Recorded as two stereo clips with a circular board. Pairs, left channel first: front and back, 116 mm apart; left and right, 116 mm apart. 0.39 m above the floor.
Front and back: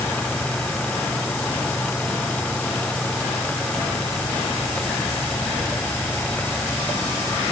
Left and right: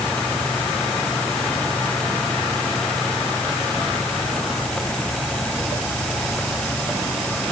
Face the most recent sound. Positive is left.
No sound to turn to.